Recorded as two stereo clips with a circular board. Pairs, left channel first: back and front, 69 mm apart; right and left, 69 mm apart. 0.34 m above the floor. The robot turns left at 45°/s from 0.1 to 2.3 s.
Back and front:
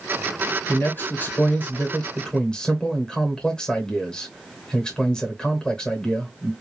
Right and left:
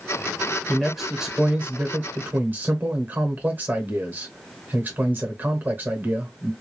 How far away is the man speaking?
About 0.9 m.